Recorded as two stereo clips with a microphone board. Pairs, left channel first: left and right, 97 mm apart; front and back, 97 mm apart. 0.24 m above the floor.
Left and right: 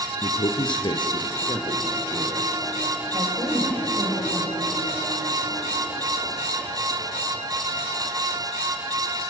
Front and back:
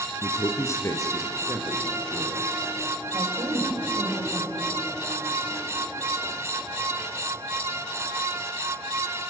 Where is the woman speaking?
135° right, 8 m.